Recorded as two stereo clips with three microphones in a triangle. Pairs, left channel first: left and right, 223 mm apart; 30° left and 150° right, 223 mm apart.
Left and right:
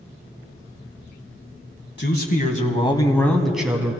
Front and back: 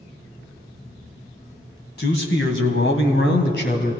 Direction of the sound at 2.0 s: 65° left.